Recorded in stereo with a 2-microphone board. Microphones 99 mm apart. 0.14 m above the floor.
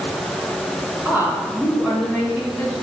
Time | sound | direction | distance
1.1 | a woman speaking | 20° right (ahead or behind) | 1.3 m